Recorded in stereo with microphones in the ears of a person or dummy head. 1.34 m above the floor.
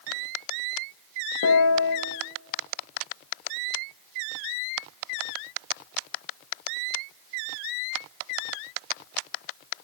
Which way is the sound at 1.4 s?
70° left (ahead or behind).